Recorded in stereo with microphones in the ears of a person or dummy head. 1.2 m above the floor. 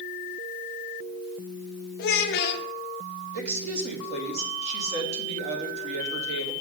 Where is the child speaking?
55° left (ahead or behind), 0.9 m.